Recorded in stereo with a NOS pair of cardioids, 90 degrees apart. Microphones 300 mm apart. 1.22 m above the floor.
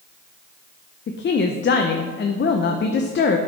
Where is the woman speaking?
35° left, 0.6 m.